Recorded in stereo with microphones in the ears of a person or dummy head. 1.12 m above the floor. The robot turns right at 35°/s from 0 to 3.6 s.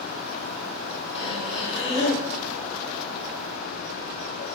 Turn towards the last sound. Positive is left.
turn(degrees=-165)